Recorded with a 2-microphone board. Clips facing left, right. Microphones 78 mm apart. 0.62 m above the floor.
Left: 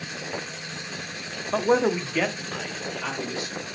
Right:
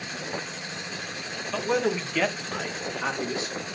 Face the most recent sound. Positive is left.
turn(degrees=-30)  # may be behind; listen again after turning